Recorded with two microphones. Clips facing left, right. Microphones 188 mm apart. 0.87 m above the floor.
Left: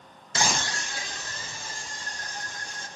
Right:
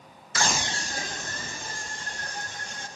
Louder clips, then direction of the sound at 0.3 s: Even; 25° left (ahead or behind).